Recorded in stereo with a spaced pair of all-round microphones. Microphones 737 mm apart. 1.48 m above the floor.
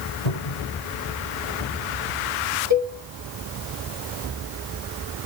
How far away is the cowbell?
About 4.5 m.